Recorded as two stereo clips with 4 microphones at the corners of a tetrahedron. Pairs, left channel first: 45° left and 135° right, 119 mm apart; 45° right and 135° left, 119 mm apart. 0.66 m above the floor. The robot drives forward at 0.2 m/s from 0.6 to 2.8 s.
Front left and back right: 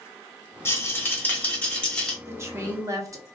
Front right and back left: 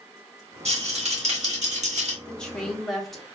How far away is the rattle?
About 0.9 m.